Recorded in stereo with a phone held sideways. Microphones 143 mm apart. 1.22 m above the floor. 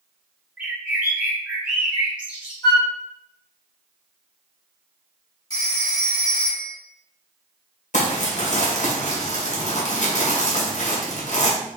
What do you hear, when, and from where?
0.6 s a bird: 10° right (ahead or behind), 1.2 m
2.6 s a flute: 30° left (ahead or behind), 1.1 m
5.5 s a phone ringing: 30° left (ahead or behind), 2 m
7.9 s crumpling: 60° left (ahead or behind), 1.1 m